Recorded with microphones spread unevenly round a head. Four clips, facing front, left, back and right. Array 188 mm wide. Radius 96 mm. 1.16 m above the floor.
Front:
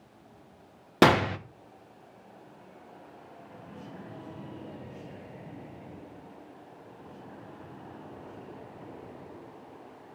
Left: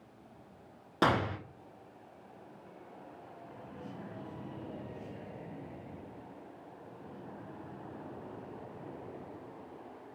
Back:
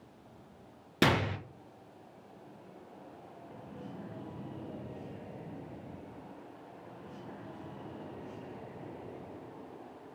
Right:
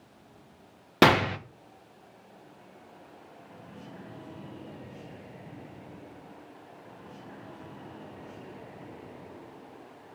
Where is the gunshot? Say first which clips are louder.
Right 8 dB, front 8 dB; 45° right, 1.0 m.